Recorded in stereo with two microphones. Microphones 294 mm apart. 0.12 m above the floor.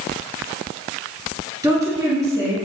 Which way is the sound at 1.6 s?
10° right (ahead or behind).